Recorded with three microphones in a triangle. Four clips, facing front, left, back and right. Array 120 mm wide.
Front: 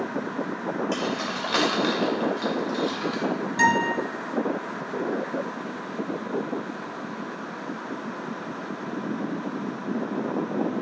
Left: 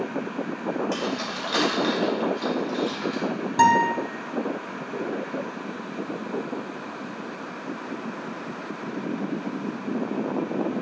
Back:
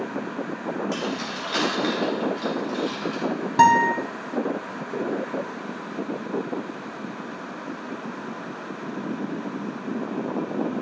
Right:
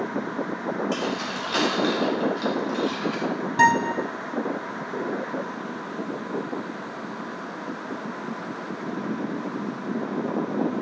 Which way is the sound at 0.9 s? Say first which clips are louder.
Right 1 dB, front 1 dB; 30° left.